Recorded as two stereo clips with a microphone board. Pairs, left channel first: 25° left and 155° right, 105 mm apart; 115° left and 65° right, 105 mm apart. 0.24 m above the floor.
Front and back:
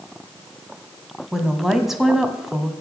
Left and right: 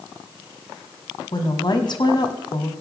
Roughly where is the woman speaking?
Behind left.